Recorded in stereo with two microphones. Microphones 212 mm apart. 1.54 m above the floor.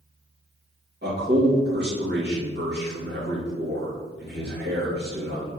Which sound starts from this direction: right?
A man speaking, at 1.0 s.